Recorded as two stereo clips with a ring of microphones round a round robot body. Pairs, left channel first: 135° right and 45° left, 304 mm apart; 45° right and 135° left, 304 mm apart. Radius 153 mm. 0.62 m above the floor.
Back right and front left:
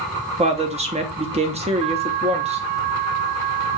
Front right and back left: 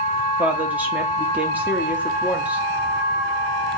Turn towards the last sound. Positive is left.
turn(degrees=60)